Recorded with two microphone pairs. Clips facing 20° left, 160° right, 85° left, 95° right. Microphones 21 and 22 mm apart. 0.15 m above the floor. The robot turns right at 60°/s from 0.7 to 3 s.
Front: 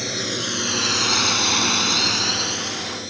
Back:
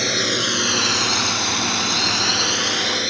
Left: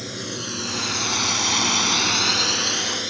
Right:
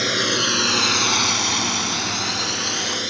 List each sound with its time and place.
0.0 s a drone: 110° right; by 3.1 s 175° right